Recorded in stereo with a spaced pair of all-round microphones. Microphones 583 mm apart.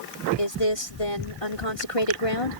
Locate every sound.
0.4 s a woman speaking: 70° left (ahead or behind)